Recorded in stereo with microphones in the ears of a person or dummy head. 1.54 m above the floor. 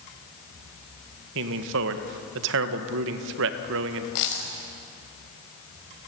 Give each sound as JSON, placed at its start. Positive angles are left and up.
{"t": 1.4, "sound": "a man speaking", "side_deg": -70, "distance_m": 1.8}
{"t": 4.2, "sound": "a dropped coin", "side_deg": 70, "distance_m": 4.5}